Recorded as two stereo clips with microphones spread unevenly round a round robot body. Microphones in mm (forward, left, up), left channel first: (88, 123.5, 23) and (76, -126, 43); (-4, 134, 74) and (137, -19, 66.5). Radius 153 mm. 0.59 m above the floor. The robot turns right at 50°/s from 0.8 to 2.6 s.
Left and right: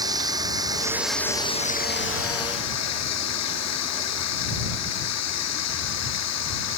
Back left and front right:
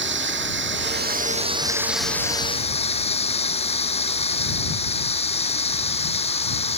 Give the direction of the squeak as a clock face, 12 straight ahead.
I don't hear a squeak.